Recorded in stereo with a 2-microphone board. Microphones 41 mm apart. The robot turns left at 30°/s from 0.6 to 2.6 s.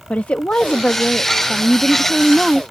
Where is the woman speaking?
50° left; by 2.6 s 10° right.